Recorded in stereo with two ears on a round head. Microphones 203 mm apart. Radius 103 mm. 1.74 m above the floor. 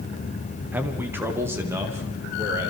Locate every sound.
0.7 s a man speaking: 10° right (ahead or behind), 1.5 m; by 2.7 s 15° right (ahead or behind), 4 m